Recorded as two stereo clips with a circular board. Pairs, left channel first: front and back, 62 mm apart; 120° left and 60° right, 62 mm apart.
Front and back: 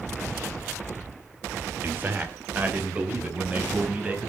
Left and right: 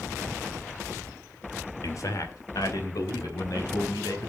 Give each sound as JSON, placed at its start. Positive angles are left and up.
{"t": 1.8, "sound": "a man speaking", "azimuth_deg": 130, "distance_m": 1.5}